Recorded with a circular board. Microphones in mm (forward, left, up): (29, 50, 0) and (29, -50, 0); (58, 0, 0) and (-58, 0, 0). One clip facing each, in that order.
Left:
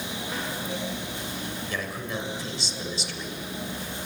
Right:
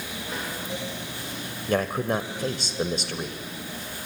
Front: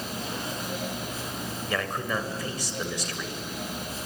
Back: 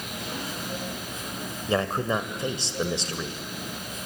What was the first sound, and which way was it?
A man speaking, 120° right.